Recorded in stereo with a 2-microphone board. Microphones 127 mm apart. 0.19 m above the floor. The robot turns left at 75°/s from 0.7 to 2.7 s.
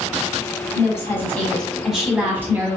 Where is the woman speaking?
20° left (ahead or behind), 1.3 m; by 2.8 s 20° right (ahead or behind), 1.3 m.